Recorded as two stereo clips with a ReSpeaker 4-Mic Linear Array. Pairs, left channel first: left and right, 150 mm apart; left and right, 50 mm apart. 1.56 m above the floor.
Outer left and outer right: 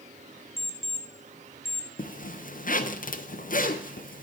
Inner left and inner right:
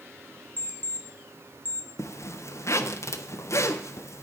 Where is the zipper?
60° left (ahead or behind), 0.7 m.